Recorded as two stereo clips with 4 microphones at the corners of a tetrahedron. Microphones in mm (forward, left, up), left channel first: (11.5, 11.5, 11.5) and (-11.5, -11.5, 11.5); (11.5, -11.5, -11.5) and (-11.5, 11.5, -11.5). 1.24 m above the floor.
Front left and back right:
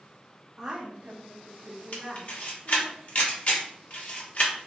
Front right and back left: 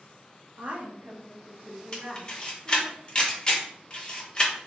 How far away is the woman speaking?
About 0.9 m.